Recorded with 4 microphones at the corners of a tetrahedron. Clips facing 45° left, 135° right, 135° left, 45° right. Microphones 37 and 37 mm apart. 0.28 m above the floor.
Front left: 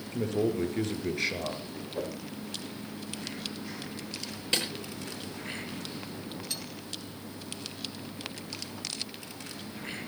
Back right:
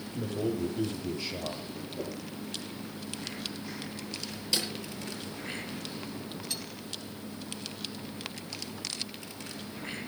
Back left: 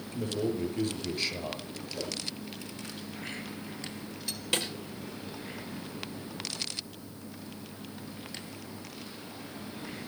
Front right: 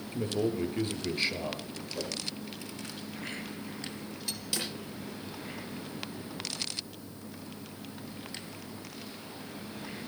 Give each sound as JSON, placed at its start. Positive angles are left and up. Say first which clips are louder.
{"t": 0.1, "sound": "a man speaking", "louder": "front left 4 dB, front right 1 dB", "azimuth_deg": 25, "distance_m": 6.0}
{"t": 1.9, "sound": "a whoosh", "louder": "front left 3 dB, even", "azimuth_deg": 35, "distance_m": 7.5}
{"t": 4.5, "sound": "a snare drum", "louder": "front left 2 dB, back left 5 dB", "azimuth_deg": 95, "distance_m": 7.0}